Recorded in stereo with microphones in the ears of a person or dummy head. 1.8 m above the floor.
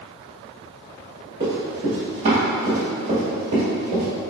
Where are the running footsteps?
20° right (ahead or behind), 1.9 m; by 4.1 s 30° right (ahead or behind), 2.5 m.